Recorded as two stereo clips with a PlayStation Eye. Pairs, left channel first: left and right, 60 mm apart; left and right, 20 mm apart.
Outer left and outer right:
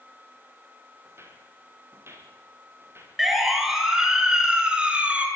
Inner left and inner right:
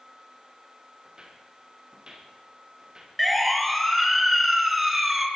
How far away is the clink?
No clink in this recording.